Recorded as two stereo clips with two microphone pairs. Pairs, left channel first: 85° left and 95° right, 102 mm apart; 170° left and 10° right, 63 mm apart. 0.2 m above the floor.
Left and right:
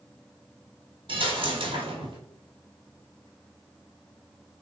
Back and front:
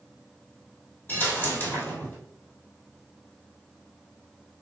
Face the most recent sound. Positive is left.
turn(degrees=-130)